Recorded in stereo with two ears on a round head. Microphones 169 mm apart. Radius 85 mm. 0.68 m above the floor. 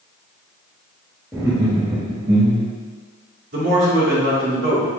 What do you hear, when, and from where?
1.3 s laughter: 15° right (ahead or behind), 0.8 m; by 2.7 s 35° right (ahead or behind), 1.0 m
3.5 s a man speaking: 60° right (ahead or behind), 1.8 m